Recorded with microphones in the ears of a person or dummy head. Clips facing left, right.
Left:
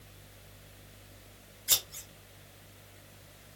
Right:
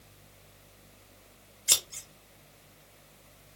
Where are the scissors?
40° right (ahead or behind), 0.7 m.